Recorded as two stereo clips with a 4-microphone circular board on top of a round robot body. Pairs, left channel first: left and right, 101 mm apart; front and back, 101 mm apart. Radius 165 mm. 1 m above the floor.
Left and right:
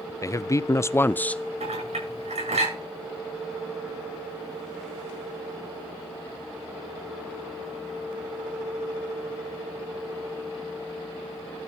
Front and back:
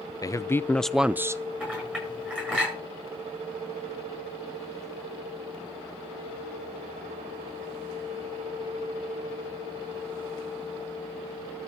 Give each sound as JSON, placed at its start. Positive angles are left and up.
{"t": 0.2, "sound": "a man speaking", "azimuth_deg": 40, "distance_m": 0.7}
{"t": 1.6, "sound": "a clink", "azimuth_deg": -100, "distance_m": 8.0}